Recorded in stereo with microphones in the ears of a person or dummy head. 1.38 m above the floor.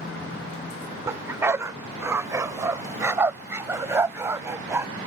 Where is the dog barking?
20° right (ahead or behind).